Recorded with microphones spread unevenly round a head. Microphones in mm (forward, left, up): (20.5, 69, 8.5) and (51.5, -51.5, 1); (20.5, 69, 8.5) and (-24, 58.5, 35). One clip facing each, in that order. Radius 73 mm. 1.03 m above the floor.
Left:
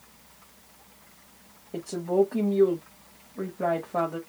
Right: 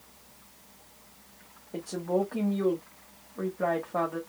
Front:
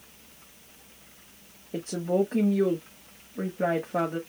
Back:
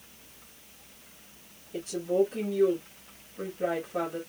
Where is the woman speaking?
25° left, 1.8 m.